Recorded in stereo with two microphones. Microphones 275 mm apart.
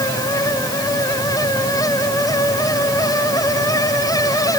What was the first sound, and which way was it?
Only background noise.